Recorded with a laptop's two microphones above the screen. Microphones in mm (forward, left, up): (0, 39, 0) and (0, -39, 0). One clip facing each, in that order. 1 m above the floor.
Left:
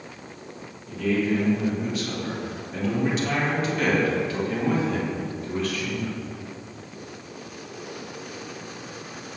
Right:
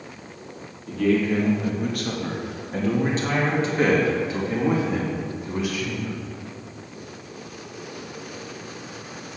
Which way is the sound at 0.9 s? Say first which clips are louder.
Right 3 dB; 65° right (ahead or behind).